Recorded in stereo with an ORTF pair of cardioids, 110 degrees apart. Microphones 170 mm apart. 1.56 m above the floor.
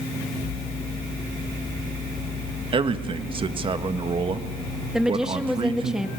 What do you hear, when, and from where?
2.7 s a man speaking: 30° right, 1.8 m
4.9 s a woman speaking: 5° right, 2.5 m